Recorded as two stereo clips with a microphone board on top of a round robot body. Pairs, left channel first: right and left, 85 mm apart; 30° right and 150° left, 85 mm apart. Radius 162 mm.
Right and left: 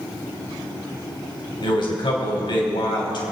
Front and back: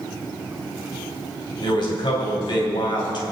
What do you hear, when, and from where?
1.6 s a man speaking: 60° right, 3.5 m